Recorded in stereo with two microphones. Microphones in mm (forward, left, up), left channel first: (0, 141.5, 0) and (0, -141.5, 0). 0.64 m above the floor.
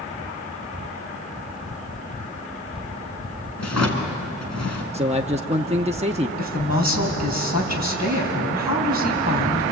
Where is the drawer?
65° left (ahead or behind), 3 m.